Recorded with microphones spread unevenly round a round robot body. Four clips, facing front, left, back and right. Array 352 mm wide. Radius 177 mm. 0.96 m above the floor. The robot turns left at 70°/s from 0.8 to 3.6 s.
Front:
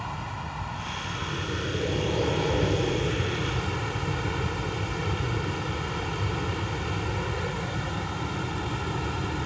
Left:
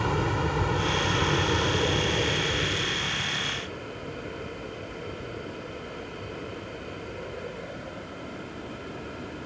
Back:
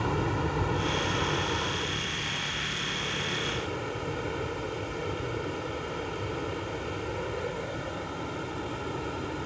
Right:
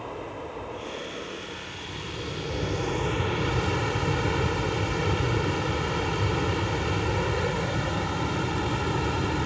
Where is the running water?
125° left; by 9.5 s 70° right.